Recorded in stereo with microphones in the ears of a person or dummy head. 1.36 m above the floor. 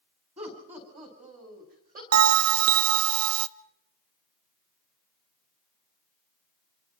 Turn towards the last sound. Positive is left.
turn(degrees=-80)